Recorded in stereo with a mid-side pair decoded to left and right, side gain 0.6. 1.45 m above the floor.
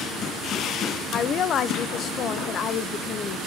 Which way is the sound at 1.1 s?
50° left.